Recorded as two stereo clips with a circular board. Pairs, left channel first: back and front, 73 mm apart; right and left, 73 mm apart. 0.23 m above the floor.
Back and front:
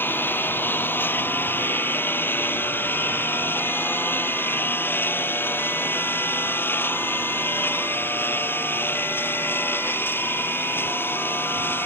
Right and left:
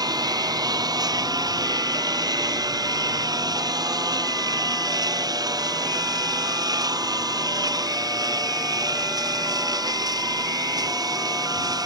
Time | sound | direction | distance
0.0 | a lawn mower | 120° left | ?